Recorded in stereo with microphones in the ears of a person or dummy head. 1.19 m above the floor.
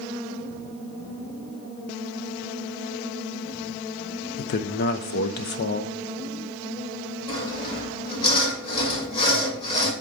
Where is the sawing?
30° left (ahead or behind), 2.5 m.